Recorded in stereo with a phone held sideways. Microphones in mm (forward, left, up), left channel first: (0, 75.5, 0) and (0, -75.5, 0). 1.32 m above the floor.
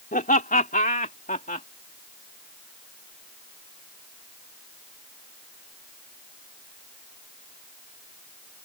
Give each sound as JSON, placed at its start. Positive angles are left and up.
{"t": 0.1, "sound": "laughter", "side_deg": 70}